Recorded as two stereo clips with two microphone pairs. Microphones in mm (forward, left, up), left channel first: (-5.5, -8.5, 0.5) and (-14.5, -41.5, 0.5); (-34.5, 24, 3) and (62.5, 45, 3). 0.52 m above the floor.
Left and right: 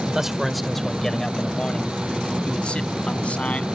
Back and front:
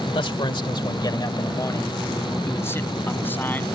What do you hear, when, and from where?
0.1 s a man speaking: 175° right; by 3.6 s 120° left